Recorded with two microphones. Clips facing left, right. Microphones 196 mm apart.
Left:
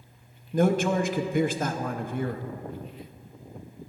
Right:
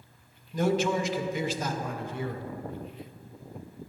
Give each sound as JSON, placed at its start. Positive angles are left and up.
{"t": 0.5, "sound": "a man speaking", "side_deg": 55, "distance_m": 0.5}